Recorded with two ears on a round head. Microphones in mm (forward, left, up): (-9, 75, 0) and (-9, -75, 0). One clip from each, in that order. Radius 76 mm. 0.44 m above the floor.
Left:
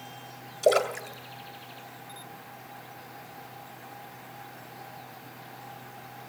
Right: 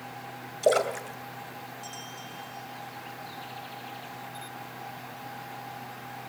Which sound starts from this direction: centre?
A splash, at 0.6 s.